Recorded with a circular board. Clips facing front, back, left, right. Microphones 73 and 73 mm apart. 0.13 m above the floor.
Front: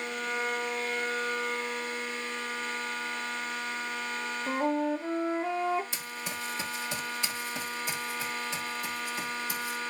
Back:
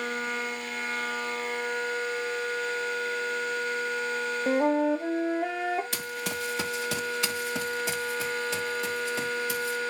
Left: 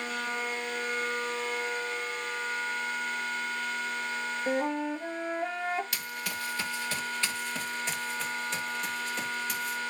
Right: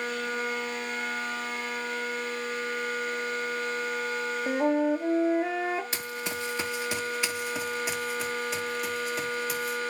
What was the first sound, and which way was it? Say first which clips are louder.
A flute: back 5 dB, right 6 dB; 175° right.